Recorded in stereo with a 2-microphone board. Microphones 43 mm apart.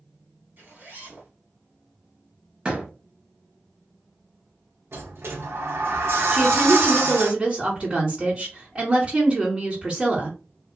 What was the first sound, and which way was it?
A zipper, 55° right (ahead or behind).